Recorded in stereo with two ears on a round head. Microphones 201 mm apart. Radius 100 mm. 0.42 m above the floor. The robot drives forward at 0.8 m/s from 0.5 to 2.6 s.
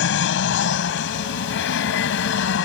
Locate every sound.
0.0 s an aircraft: 60° left (ahead or behind)